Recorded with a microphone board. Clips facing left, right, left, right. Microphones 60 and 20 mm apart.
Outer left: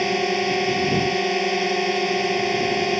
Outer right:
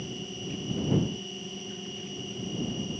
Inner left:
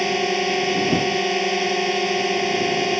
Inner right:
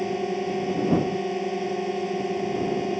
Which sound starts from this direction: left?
A drone, at 0.0 s.